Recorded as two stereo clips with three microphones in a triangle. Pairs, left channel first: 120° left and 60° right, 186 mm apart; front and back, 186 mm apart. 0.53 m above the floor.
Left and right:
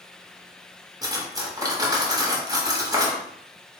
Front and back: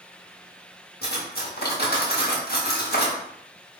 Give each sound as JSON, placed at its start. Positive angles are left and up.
{"t": 1.0, "sound": "cutlery clinking", "azimuth_deg": 10, "distance_m": 0.8}